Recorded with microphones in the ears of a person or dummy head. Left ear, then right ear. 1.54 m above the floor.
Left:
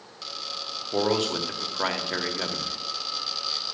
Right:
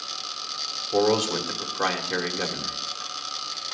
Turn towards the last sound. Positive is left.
turn(degrees=0)  # may be behind; listen again after turning